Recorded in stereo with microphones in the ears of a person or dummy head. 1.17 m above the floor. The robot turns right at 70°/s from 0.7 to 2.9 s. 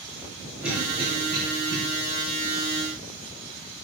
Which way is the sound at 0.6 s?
5° right (ahead or behind).